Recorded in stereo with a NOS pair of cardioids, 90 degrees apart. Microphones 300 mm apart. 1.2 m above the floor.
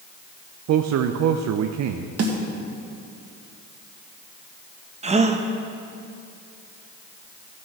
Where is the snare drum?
55° right, 1.8 m.